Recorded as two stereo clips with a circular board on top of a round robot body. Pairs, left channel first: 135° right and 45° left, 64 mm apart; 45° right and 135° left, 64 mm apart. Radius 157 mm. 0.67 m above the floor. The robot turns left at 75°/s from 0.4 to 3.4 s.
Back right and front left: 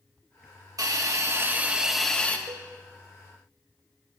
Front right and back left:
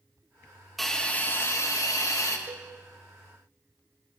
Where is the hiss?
45° left, 1.8 m; by 2.4 s 75° right, 1.8 m.